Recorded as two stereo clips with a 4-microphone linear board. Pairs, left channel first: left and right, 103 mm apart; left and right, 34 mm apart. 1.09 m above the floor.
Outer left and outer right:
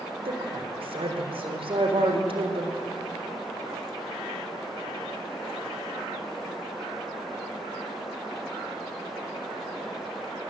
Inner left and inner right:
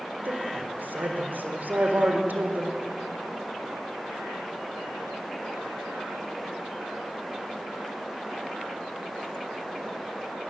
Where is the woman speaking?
65° right (ahead or behind), 4 m.